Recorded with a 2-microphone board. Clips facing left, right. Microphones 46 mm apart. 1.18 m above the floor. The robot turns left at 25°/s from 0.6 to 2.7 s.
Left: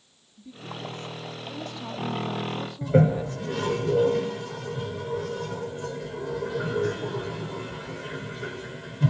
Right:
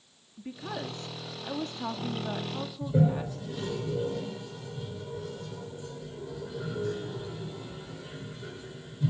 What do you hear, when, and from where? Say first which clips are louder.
0.4 s a woman speaking: right 1 dB; 120° right, 2 m; by 3.8 s 170° right, 2 m
2.8 s a toilet flushing: left 6 dB; 80° left, 3 m